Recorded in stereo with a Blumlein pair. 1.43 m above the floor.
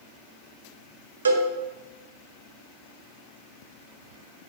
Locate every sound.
1.2 s a cowbell: 70° right, 1.0 m